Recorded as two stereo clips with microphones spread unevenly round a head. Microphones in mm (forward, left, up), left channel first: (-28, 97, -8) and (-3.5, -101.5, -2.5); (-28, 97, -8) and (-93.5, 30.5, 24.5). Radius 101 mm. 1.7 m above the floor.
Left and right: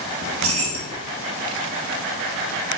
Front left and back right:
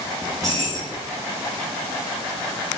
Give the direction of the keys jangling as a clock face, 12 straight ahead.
2 o'clock.